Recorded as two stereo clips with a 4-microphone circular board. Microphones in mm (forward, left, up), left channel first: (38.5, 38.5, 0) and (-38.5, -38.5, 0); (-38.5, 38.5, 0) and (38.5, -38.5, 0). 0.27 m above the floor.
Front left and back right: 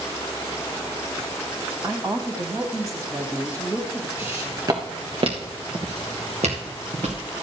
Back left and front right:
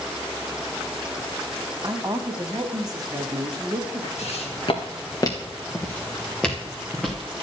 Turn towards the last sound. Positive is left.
turn(degrees=-135)